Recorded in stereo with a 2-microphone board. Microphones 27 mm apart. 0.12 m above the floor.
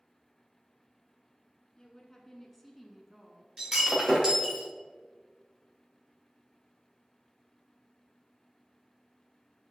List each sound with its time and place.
1.8 s a woman speaking: 25° left (ahead or behind), 1.4 m; by 3.5 s 20° right (ahead or behind), 1.4 m
3.6 s breaking glass: 20° right (ahead or behind), 3.5 m